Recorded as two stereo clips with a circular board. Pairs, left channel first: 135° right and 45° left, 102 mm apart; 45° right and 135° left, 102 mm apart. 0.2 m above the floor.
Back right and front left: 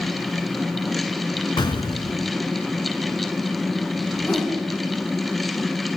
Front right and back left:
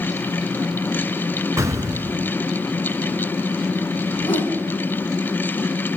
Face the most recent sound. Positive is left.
turn(degrees=-65)